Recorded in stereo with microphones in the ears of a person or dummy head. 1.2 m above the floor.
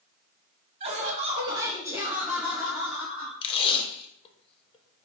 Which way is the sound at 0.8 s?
30° right (ahead or behind).